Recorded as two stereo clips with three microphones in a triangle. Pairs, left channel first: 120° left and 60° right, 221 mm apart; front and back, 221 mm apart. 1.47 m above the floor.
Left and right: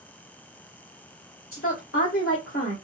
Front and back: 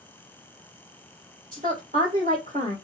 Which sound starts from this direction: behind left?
A woman speaking, at 1.5 s.